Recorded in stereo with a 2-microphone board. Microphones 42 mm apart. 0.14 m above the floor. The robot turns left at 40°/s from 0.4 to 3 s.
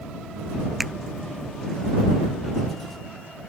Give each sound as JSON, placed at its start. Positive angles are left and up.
{"t": 0.8, "sound": "a finger snap", "side_deg": -5}